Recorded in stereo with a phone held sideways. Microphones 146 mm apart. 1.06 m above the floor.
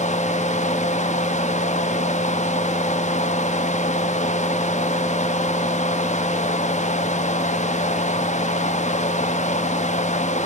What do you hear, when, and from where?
0.0 s a fan: 55° left (ahead or behind), 1.0 m